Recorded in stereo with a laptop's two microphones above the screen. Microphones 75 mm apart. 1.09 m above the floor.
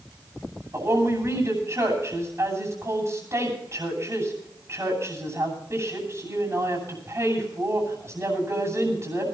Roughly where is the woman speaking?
Right.